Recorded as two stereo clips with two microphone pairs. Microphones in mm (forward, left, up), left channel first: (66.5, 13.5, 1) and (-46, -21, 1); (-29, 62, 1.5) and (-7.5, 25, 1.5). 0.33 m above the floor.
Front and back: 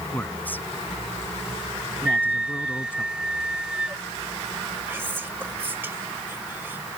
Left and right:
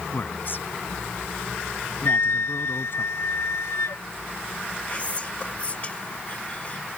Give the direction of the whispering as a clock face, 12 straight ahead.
7 o'clock.